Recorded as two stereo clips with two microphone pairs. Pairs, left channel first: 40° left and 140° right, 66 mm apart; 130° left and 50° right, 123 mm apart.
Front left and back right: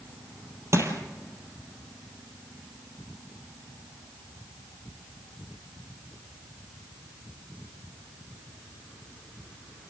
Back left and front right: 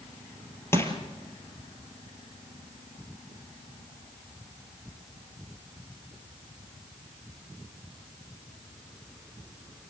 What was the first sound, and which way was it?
Crushing, 165° right.